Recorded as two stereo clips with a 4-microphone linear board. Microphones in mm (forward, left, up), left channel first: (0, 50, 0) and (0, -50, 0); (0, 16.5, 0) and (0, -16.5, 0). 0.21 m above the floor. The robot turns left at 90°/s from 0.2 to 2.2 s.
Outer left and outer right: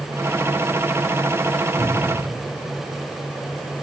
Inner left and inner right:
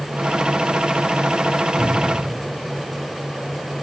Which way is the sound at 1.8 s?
45° right (ahead or behind).